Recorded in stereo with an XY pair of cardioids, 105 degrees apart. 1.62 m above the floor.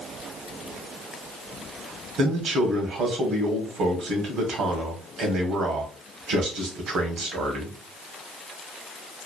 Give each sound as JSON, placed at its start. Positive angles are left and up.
{"t": 2.2, "sound": "a man speaking", "azimuth_deg": -70, "distance_m": 1.1}